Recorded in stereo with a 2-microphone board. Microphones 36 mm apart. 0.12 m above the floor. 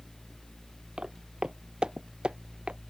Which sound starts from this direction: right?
Footsteps, at 1.0 s.